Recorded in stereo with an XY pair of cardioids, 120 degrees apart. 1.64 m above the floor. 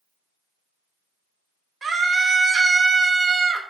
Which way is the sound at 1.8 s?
25° right.